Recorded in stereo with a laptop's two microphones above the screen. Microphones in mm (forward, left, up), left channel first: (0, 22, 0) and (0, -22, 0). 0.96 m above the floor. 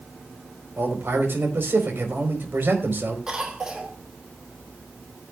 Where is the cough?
15° right (ahead or behind), 3.5 m.